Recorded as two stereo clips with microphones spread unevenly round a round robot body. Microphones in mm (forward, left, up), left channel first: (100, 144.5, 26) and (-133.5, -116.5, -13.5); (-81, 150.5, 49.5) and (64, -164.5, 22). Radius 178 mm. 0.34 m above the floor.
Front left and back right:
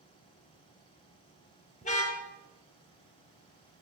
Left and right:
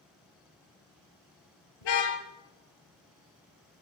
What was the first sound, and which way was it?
A car horn, 120° left.